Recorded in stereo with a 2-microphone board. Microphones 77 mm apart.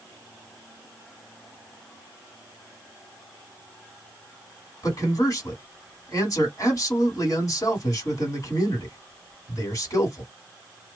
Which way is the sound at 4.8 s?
45° left (ahead or behind).